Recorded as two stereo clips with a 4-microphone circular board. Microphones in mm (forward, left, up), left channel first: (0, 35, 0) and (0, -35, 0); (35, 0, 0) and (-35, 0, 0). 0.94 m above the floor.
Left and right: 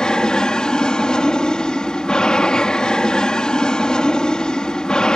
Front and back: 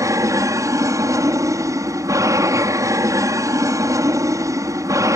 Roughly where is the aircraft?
Behind.